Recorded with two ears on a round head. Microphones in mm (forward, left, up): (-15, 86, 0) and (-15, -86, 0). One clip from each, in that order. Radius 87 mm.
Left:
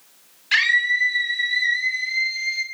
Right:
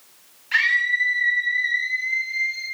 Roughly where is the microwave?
No microwave in this recording.